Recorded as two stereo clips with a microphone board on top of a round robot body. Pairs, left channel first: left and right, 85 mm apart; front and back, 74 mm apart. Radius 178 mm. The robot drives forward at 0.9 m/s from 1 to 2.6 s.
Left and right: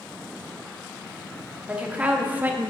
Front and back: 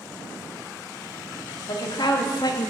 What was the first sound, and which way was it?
A woman speaking, 15° right.